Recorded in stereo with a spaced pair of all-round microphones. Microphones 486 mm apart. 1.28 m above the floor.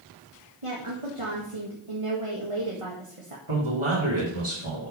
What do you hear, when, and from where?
0.6 s a woman speaking: 80° right, 1.9 m
3.5 s a man speaking: 75° right (ahead or behind), 3 m